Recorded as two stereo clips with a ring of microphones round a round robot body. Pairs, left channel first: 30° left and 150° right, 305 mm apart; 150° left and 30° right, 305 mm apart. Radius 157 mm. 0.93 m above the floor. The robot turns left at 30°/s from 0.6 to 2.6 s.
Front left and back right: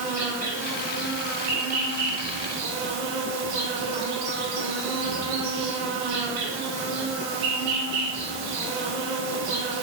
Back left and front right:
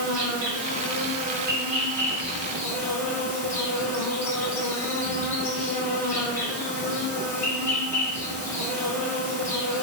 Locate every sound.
0.0 s an insect: 65° right, 1.3 m; by 9.8 s 125° right, 1.3 m